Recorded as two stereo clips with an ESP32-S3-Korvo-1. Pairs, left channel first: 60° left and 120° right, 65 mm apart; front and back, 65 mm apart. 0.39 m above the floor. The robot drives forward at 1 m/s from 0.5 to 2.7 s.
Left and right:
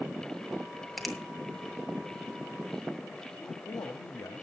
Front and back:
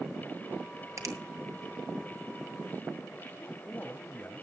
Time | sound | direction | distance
1.0 | a finger snap | 150° left | 2.5 m
3.4 | a man speaking | 60° left | 1.6 m